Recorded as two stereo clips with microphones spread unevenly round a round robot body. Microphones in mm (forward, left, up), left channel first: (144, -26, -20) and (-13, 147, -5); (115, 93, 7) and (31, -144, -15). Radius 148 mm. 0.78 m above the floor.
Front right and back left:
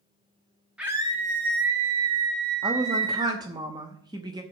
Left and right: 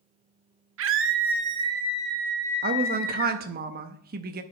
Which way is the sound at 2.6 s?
150° right.